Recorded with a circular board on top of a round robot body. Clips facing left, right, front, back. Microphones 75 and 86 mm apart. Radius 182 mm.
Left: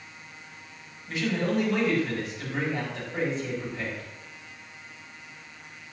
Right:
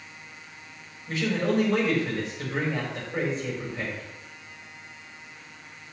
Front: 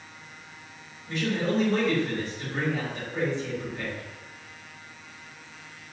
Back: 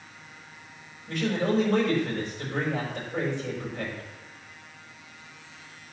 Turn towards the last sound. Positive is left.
turn(degrees=-145)